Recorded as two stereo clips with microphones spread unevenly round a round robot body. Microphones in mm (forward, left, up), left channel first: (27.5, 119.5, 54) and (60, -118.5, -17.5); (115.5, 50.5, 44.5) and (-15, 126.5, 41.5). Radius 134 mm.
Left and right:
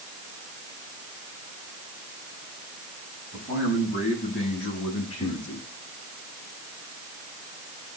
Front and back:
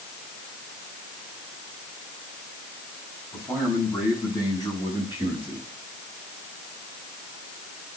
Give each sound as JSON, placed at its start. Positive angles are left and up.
{"t": 3.3, "sound": "a man speaking", "azimuth_deg": 40, "distance_m": 6.5}